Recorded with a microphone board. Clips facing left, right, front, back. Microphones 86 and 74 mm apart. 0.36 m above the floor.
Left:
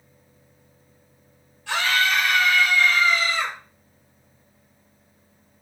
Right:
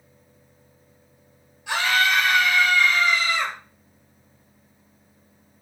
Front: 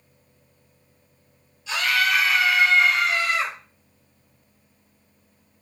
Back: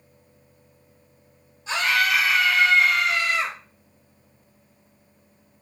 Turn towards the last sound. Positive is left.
turn(degrees=-20)